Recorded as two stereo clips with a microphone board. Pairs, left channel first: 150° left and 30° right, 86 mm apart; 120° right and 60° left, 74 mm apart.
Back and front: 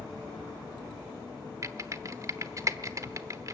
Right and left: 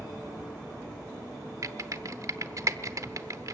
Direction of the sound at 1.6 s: 20° left.